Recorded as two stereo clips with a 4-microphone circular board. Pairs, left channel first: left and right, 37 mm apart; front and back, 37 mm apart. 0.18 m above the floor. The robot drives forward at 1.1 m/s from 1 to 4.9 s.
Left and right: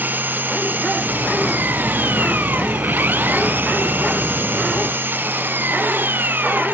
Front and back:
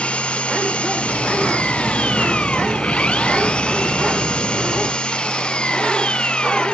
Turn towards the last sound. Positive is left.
turn(degrees=-60)